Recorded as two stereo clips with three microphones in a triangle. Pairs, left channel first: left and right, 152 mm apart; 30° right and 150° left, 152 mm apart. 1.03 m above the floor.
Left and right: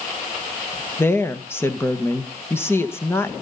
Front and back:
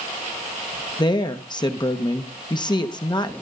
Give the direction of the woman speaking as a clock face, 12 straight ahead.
11 o'clock.